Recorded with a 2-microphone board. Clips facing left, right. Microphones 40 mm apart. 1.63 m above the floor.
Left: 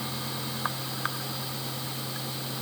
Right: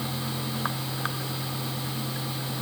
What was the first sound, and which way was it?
Only background noise.